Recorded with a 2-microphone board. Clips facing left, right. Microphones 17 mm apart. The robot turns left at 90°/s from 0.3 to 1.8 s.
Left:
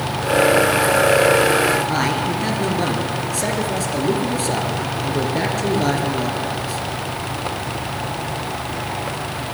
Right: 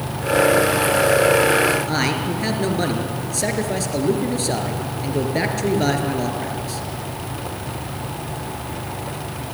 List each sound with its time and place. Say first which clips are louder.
1.9 s a man speaking: left 2 dB; 10° right (ahead or behind), 3 m